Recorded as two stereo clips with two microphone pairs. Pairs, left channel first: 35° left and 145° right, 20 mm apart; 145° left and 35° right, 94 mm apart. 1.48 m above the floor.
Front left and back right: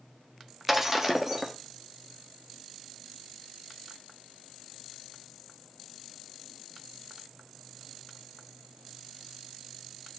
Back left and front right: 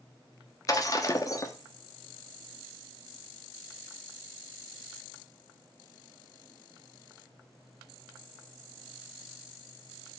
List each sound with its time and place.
0.7 s breaking glass: 150° left, 1.0 m